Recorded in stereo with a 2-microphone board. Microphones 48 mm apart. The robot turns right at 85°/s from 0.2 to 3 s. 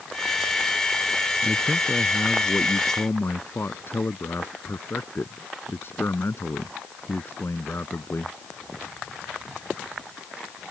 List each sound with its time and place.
1.4 s a man speaking: 5° right; by 8.4 s 130° left